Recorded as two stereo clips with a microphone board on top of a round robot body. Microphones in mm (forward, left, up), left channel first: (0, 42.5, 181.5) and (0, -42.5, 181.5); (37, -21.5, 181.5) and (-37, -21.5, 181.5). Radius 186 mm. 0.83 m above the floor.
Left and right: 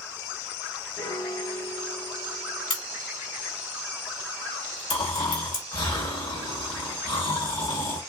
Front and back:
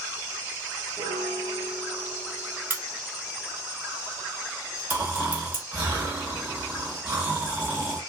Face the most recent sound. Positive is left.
turn(degrees=110)